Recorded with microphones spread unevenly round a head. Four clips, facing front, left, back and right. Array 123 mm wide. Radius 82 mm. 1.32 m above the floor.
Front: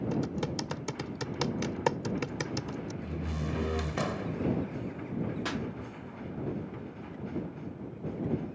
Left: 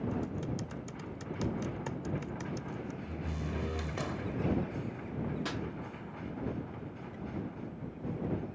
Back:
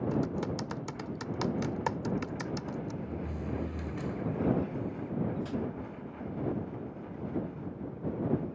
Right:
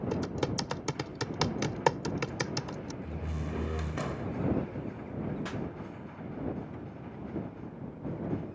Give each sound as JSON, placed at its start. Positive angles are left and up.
{"t": 0.1, "sound": "typing on a keyboard", "azimuth_deg": -70}
{"t": 3.0, "sound": "a door slam", "azimuth_deg": -10}
{"t": 5.5, "sound": "a pop", "azimuth_deg": 10}